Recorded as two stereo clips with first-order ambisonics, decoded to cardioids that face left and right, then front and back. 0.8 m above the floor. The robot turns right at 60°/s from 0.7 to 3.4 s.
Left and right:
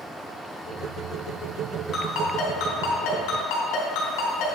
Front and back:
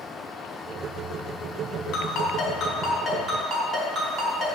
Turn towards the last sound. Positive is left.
turn(degrees=120)